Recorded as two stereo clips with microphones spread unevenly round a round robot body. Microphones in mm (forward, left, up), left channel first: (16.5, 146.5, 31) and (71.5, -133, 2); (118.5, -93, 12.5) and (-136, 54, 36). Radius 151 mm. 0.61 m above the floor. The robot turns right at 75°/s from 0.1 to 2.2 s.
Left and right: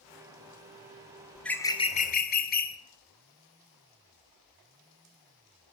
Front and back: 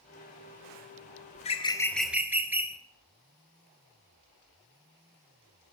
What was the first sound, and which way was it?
A bird, straight ahead.